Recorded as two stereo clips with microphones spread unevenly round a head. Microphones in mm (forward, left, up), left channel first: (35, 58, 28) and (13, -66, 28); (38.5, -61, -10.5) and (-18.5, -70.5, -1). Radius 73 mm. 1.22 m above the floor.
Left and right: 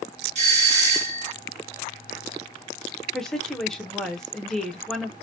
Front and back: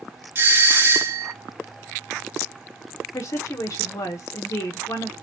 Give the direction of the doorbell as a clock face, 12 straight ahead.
4 o'clock.